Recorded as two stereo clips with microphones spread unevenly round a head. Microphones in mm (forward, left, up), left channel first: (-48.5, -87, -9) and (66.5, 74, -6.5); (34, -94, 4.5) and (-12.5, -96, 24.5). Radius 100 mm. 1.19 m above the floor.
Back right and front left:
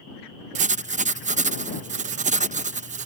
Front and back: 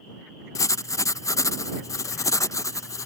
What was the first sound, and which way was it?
Writing, straight ahead.